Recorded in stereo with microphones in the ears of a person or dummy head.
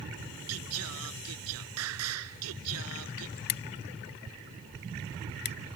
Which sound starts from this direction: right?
Singing, at 0.5 s.